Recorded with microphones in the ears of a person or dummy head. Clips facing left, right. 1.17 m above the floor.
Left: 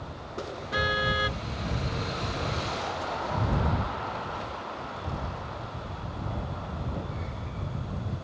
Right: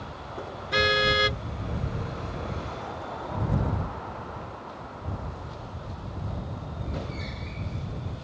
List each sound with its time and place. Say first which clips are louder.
0.7 s a car horn: right 5 dB; 35° right (ahead or behind)